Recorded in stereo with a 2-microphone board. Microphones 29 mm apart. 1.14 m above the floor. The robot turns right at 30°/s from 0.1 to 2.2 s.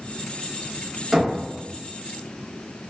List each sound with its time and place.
1.1 s knocking: centre (ahead or behind), 0.9 m; by 1.4 s 5° left (ahead or behind), 0.9 m